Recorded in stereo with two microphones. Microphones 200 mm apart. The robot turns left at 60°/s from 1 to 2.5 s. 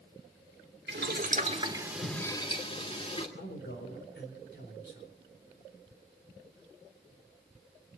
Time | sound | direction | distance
0.9 | boiling | 120° right | 2.5 m
3.4 | a man speaking | 65° left (ahead or behind) | 4.5 m